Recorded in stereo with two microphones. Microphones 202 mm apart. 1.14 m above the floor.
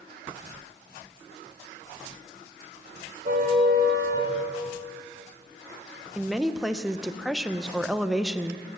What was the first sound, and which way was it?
A car horn, 45° right (ahead or behind).